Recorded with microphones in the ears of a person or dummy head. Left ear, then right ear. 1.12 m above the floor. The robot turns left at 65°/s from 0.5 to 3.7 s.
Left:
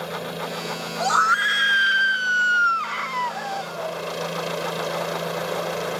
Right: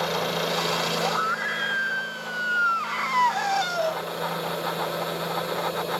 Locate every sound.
0.0 s a helicopter: 30° right; by 6.0 s 125° left
1.0 s a scream: 135° left; by 4.0 s 45° right